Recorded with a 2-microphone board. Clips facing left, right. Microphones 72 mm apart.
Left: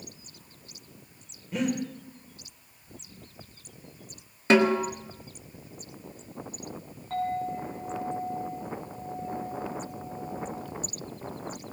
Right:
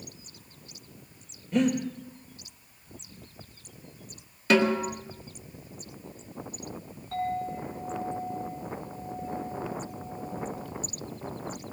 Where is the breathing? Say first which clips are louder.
Right 4 dB; 5° left (ahead or behind), 2.5 m.